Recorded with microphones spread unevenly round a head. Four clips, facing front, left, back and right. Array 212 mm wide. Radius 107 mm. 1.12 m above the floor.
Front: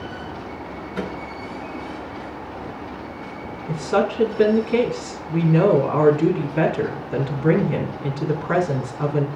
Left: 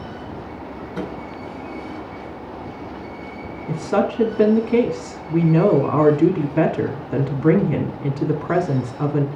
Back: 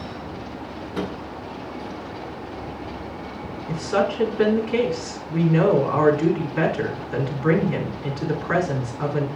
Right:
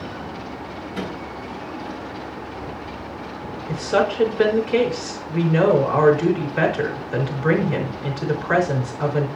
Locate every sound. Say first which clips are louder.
0.9 s a microwave: left 1 dB, back 1 dB; 150° left, 8.5 m
3.7 s a woman speaking: even, front 1 dB; 70° left, 3 m